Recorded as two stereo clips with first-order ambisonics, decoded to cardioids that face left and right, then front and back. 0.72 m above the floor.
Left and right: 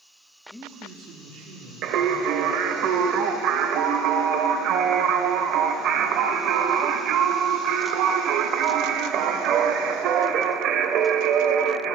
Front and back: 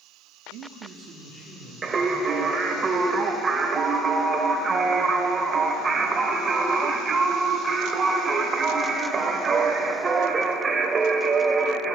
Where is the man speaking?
165° left, 0.7 m; by 2.8 s 90° right, 3.5 m.